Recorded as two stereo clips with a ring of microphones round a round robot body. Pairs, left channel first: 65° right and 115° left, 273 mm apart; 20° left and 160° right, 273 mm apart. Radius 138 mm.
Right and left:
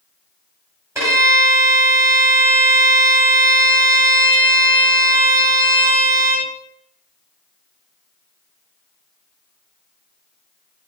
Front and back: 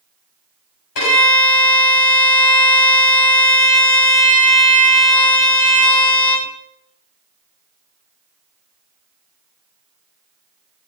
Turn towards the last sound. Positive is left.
turn(degrees=30)